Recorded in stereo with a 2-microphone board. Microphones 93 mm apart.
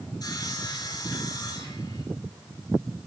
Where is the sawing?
45° left (ahead or behind), 1.9 m.